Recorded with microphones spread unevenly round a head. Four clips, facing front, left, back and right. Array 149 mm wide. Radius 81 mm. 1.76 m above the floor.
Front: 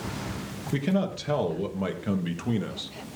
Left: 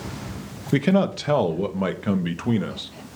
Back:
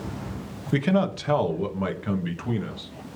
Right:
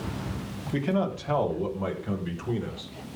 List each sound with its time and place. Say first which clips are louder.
0.7 s a man speaking: left 7 dB, back 4 dB; 100° left, 1.9 m; by 2.9 s 70° left, 2.5 m